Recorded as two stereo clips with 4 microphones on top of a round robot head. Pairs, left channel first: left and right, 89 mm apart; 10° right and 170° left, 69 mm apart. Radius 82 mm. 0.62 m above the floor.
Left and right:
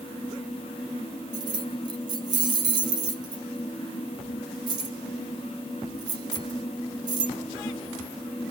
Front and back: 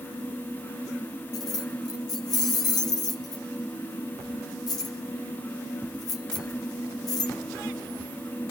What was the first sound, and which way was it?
Keys jangling, 45° right.